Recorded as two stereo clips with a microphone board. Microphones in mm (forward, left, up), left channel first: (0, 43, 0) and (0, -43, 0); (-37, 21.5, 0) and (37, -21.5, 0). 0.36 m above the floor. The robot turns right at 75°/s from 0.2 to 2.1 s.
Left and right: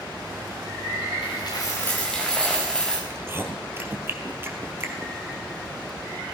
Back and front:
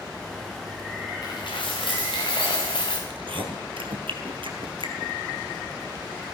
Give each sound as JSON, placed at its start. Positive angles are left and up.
{"t": 1.2, "sound": "a dropped coin", "azimuth_deg": 105, "distance_m": 4.0}
{"t": 3.1, "sound": "chewing", "azimuth_deg": -30, "distance_m": 1.8}